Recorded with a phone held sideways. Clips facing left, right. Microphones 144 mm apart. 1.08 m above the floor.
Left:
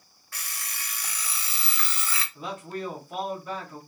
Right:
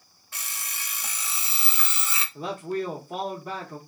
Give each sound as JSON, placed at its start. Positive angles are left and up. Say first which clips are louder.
{"t": 0.3, "sound": "an alarm clock", "louder": "right 1 dB", "side_deg": -20, "distance_m": 0.6}
{"t": 2.4, "sound": "a man speaking", "louder": "right 7 dB", "side_deg": -35, "distance_m": 0.7}